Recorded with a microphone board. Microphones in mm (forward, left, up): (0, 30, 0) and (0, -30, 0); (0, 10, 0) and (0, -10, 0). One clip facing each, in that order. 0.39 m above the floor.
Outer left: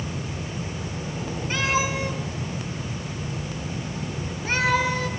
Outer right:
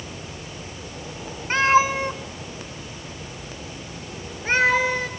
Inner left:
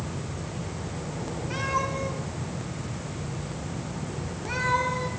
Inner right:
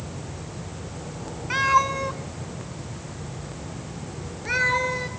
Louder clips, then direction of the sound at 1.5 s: Outer right 7 dB, inner right 9 dB; 45° right (ahead or behind).